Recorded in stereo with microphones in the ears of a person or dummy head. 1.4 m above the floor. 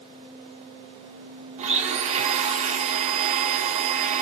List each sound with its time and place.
1.6 s a blender: 35° right (ahead or behind), 0.5 m